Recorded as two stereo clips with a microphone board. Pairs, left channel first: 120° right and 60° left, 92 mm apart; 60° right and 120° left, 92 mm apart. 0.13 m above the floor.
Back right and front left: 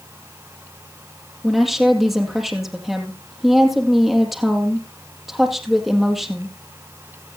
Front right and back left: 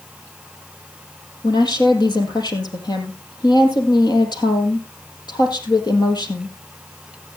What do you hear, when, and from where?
1.4 s a woman speaking: 30° right, 4 m